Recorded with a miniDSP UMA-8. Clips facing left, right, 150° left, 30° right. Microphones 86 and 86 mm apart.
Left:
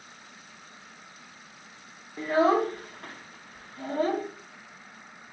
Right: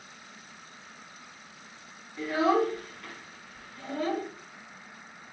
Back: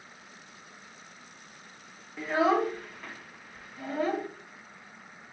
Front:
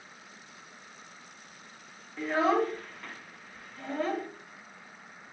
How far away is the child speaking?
About 0.7 m.